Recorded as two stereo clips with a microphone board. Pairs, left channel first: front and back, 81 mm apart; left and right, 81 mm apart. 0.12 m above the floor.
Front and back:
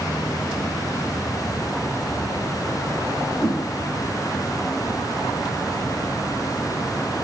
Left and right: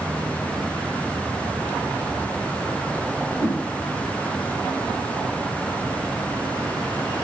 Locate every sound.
3.4 s a whoosh: 90° right, 3.5 m